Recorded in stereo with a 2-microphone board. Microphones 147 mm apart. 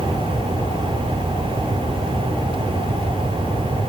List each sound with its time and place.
Only background noise.